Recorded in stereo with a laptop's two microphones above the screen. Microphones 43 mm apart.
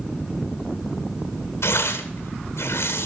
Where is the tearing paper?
85° left, 1.9 m.